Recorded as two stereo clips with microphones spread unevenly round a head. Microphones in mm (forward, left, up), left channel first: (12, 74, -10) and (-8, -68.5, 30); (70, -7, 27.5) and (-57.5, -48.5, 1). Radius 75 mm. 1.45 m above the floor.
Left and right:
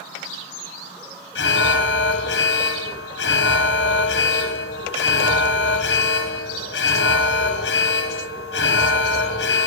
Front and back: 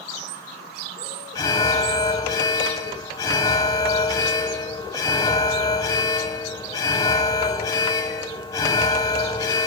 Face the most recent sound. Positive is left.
turn(degrees=85)